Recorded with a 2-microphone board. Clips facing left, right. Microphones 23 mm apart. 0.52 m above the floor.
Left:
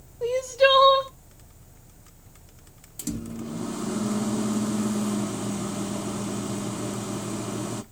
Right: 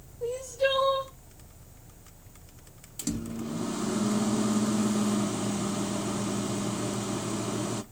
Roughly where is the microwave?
Centre.